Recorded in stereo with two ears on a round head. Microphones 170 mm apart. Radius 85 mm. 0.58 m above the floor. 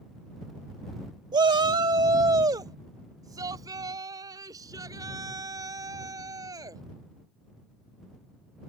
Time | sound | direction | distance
1.3 | a shout | 20° right (ahead or behind) | ?